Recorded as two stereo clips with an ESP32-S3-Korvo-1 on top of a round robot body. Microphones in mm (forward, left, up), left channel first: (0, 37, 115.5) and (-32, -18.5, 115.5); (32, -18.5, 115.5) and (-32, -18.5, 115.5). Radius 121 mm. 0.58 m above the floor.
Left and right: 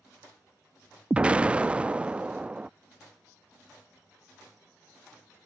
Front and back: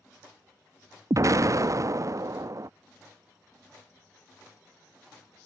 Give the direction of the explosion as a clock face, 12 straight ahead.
6 o'clock.